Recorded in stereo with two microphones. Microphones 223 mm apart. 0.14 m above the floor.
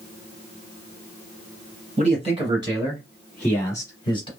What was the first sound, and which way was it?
A man speaking, 35° right (ahead or behind).